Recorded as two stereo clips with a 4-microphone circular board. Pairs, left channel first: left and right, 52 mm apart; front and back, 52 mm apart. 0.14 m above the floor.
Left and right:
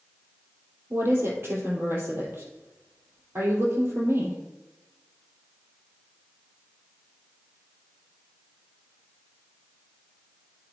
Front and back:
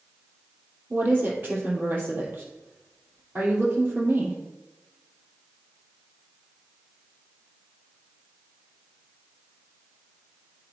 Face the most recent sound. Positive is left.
turn(degrees=-130)